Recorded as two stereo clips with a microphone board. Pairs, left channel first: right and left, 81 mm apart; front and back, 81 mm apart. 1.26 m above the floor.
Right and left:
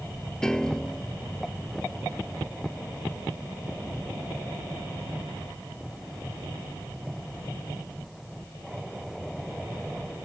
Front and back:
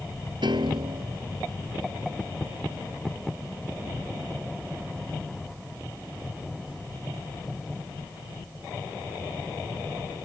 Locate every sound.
0.4 s a piano: 170° right